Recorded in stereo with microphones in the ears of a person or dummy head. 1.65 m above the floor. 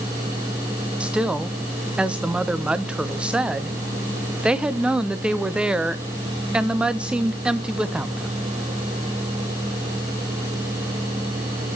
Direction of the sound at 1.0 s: 5° right (ahead or behind).